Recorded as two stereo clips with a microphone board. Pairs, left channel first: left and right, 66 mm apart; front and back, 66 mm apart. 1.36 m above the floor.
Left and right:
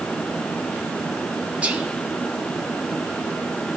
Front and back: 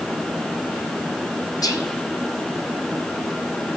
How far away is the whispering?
About 0.9 m.